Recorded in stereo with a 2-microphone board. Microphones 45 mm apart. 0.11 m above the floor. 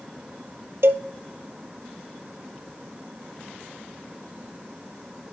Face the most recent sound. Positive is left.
turn(degrees=-65)  # may be behind; listen again after turning